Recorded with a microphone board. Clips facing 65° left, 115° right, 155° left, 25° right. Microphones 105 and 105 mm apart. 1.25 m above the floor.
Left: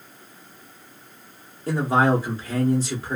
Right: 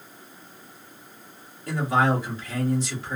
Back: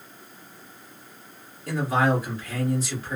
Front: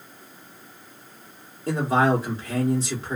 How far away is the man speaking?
About 0.9 m.